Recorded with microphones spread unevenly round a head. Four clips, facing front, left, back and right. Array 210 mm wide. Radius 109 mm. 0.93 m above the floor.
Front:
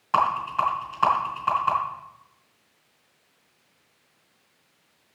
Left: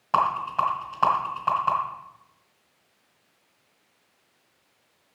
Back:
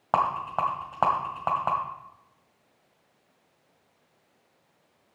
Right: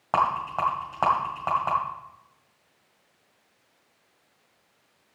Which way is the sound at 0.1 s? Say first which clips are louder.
Left 1 dB, front 3 dB; 160° right.